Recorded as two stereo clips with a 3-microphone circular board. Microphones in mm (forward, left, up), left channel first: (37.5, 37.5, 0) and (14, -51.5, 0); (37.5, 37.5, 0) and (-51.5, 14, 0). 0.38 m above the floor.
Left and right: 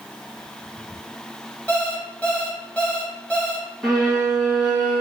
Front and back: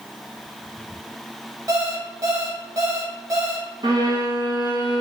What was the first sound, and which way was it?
An alarm clock, 150° left.